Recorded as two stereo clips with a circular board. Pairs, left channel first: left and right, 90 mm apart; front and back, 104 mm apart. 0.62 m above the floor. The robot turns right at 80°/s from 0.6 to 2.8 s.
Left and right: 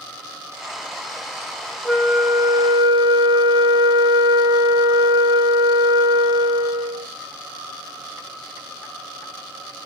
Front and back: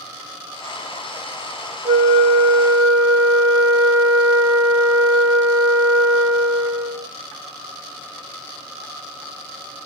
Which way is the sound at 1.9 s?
175° left.